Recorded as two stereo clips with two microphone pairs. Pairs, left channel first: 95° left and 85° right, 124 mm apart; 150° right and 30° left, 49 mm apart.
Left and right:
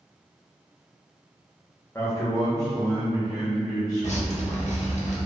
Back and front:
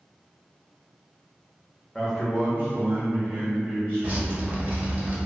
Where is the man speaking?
140° left, 0.6 m; by 4.6 s 30° left, 1.6 m.